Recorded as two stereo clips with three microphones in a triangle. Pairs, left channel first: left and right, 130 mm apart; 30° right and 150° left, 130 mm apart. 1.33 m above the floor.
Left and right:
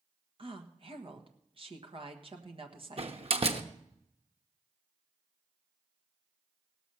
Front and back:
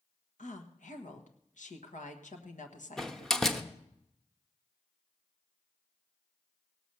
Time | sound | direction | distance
0.4 | a woman speaking | 45° right | 1.4 m
3.0 | a door slam | 115° right | 1.0 m